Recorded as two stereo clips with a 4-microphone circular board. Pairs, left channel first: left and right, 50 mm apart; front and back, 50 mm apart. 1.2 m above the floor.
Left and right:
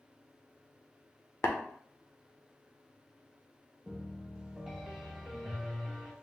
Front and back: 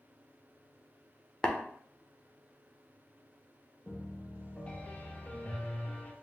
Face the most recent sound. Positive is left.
turn(degrees=-15)